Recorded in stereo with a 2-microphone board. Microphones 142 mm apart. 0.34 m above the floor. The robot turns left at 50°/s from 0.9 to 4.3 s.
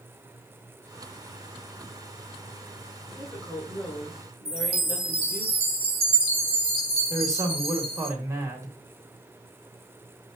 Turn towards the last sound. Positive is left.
turn(degrees=-20)  # may be behind; listen again after turning